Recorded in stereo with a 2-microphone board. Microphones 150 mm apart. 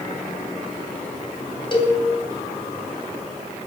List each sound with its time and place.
1.7 s a cowbell: 35° left (ahead or behind), 2 m